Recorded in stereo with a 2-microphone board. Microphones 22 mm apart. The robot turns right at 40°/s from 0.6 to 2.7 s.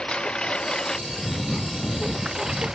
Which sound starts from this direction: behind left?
A lawn mower, at 0.0 s.